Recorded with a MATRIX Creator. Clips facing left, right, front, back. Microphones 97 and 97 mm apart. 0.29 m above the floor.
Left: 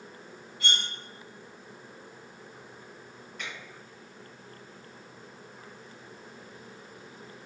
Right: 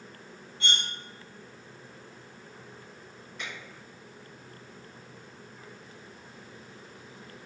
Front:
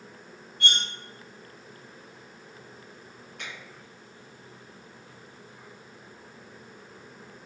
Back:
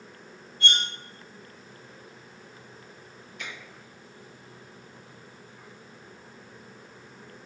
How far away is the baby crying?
I don't hear a baby crying.